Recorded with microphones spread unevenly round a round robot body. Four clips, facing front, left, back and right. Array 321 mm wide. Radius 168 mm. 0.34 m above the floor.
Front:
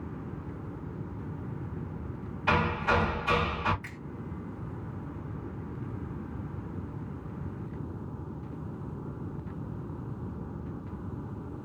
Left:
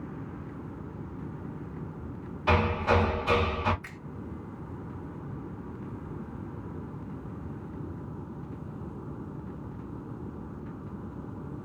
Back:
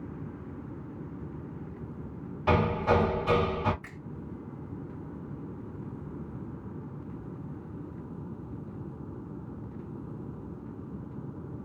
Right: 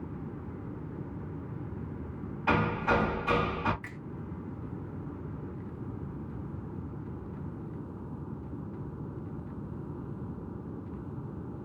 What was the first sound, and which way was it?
Hammering, straight behind.